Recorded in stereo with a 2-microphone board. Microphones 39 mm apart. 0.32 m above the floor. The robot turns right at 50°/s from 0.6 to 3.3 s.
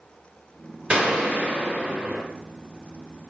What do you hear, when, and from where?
0.9 s a gunshot: 25° right (ahead or behind), 1.0 m; by 2.2 s 15° right (ahead or behind), 1.0 m